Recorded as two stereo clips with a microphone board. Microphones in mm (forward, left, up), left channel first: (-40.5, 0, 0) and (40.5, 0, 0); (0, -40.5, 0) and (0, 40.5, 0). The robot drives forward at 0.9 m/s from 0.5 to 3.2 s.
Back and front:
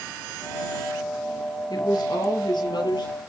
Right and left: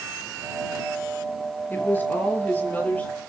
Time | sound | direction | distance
1.7 | a woman speaking | 155° right | 4 m